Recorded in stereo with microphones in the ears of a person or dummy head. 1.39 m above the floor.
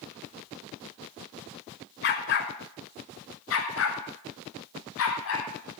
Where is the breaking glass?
I don't hear breaking glass.